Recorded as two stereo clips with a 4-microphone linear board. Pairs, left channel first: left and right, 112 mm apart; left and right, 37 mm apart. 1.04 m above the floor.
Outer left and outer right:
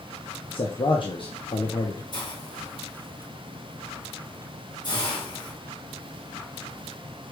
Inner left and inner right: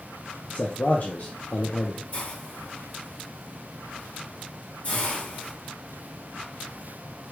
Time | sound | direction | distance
0.5 | a man speaking | 50° left (ahead or behind) | 0.8 m
2.1 | a hiss | 40° left (ahead or behind) | 1.6 m